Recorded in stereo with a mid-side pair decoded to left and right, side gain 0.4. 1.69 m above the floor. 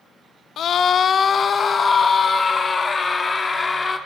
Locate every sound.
0.6 s a scream: 70° left, 1.7 m; by 4.0 s 30° left, 5.5 m